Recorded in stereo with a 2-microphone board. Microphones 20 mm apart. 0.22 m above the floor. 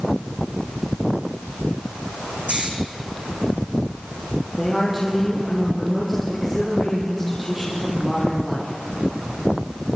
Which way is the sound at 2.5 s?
85° right.